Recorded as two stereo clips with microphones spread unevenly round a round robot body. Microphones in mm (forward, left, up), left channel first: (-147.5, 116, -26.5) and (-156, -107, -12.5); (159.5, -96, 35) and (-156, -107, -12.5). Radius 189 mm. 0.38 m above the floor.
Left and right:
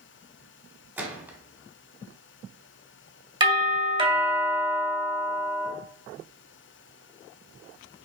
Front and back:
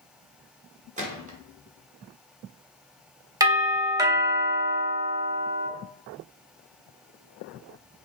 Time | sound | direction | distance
1.0 | a gunshot | 170° right | 1.4 m
3.4 | a doorbell | 135° right | 1.5 m